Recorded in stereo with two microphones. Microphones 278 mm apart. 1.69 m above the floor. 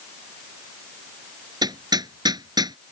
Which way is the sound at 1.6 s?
15° right (ahead or behind).